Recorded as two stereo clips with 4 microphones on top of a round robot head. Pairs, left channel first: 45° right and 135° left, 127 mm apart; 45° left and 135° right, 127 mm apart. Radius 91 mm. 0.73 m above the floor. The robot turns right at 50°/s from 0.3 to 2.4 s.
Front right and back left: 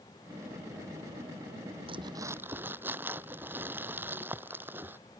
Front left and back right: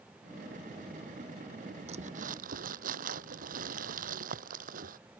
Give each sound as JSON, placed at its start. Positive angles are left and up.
{"t": 1.9, "sound": "crumpling", "azimuth_deg": -175}